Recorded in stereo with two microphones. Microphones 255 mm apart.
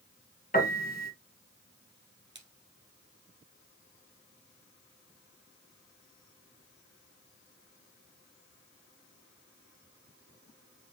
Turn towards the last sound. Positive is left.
turn(degrees=-40)  # may be behind; listen again after turning